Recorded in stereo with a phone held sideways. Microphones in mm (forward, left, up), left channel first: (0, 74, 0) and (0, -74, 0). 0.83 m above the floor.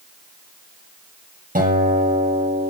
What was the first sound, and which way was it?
A guitar, 70° right (ahead or behind).